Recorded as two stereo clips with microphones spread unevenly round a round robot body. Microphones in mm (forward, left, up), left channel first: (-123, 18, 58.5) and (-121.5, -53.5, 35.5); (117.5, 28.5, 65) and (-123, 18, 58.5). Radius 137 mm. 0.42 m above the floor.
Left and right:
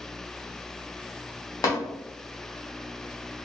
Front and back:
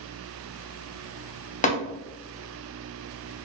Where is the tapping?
55° left, 0.8 m.